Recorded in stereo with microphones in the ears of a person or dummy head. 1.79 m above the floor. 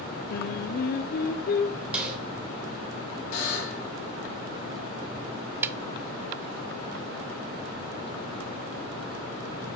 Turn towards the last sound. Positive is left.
turn(degrees=-5)  # may be behind; listen again after turning